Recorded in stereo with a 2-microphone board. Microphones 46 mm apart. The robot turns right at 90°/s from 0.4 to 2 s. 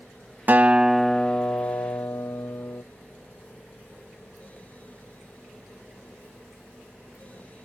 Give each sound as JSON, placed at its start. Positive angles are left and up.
{"t": 0.5, "sound": "a guitar", "azimuth_deg": -40}